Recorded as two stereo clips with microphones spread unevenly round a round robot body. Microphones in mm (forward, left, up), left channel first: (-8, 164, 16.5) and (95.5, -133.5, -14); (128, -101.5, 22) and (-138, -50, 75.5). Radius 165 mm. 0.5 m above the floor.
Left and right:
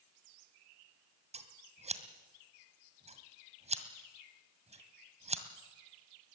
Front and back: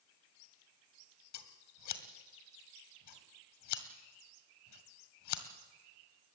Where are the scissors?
Straight ahead, 1.9 m.